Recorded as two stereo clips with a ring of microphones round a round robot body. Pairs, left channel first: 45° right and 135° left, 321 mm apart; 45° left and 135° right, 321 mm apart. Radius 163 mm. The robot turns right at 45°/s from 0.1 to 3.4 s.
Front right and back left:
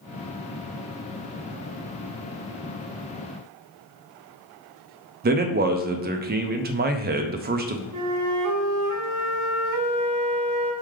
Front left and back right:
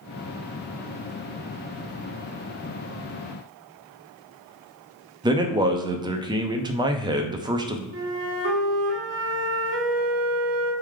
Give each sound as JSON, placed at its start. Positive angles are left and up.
{"t": 5.2, "sound": "a man speaking", "azimuth_deg": 160, "distance_m": 0.5}
{"t": 7.9, "sound": "a flute", "azimuth_deg": 170, "distance_m": 0.8}